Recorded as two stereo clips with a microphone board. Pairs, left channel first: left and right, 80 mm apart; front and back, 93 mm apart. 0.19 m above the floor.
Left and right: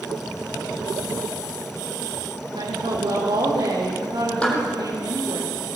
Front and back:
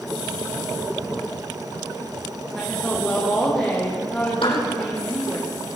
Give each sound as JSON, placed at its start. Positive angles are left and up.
{"t": 2.5, "sound": "a woman speaking", "azimuth_deg": -85, "distance_m": 8.0}
{"t": 4.4, "sound": "a clap", "azimuth_deg": 10, "distance_m": 6.0}